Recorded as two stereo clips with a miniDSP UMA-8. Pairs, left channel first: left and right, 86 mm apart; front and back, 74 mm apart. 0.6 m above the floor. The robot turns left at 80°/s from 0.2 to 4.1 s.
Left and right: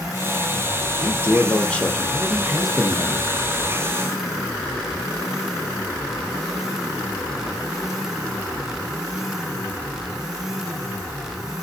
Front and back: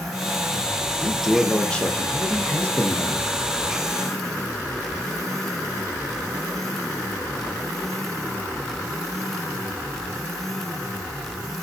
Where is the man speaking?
110° left, 0.6 m; by 3.3 s 75° right, 0.6 m.